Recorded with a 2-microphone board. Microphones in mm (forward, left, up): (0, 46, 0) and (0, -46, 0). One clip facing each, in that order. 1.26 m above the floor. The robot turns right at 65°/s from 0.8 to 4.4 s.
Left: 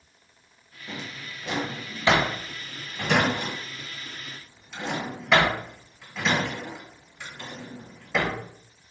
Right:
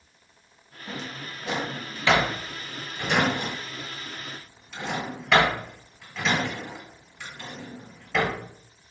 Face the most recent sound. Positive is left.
turn(degrees=10)  # may be behind; listen again after turning